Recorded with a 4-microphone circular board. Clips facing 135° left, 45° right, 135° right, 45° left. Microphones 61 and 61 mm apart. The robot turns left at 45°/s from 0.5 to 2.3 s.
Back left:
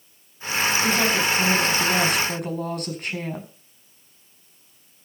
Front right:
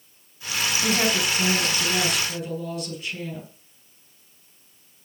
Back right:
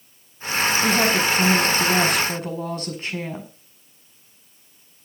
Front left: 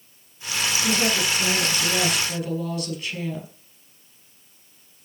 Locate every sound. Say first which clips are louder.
0.8 s a woman speaking: front right 1 dB, back right 3 dB; 120° right, 5.5 m; by 3.5 s 170° left, 5.5 m